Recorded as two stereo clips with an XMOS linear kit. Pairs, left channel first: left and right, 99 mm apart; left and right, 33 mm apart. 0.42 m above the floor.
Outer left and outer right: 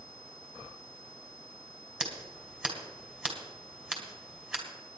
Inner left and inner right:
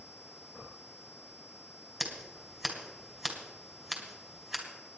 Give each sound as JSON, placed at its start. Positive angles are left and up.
{"t": 2.0, "sound": "scissors", "side_deg": -10, "distance_m": 2.5}